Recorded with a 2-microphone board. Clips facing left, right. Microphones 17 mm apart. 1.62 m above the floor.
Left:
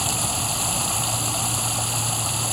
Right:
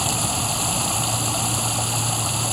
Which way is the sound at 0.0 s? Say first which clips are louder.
Right 2 dB; 5° right (ahead or behind).